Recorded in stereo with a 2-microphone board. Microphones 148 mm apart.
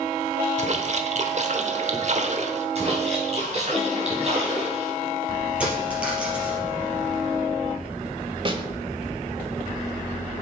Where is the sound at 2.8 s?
45° right (ahead or behind), 3.5 m.